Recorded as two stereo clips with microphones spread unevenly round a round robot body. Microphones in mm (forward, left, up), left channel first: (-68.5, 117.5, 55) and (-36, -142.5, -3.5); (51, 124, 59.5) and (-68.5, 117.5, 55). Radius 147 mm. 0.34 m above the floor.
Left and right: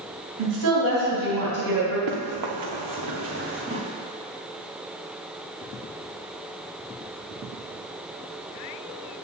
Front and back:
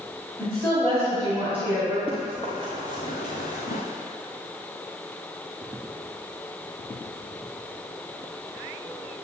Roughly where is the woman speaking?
Right.